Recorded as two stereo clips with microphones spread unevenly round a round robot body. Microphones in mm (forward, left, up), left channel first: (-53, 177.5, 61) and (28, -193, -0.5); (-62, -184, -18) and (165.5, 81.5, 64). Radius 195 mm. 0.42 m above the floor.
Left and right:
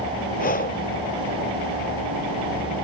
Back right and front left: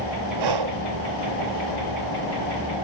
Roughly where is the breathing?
Ahead left.